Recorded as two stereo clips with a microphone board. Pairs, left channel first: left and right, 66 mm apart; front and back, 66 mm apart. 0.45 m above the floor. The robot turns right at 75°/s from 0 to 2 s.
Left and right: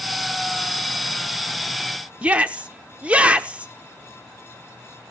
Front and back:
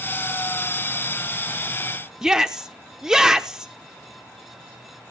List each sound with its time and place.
2.2 s a shout: 115° right, 0.7 m